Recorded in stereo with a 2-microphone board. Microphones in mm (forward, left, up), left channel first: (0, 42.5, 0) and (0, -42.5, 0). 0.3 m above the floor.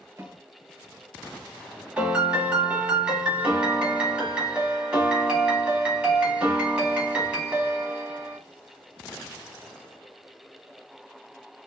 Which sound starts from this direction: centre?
A piano, at 2.0 s.